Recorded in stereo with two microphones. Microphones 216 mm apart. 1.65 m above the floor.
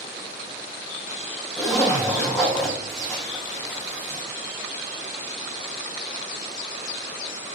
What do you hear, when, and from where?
1.6 s a zipper: centre (ahead or behind), 3 m